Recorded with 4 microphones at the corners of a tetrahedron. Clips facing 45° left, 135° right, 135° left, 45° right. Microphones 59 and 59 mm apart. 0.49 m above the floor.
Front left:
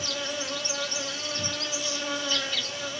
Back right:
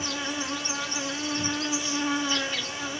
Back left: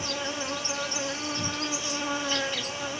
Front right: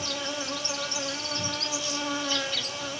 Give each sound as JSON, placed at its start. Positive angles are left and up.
{"t": 0.0, "sound": "an insect", "azimuth_deg": 180, "distance_m": 1.1}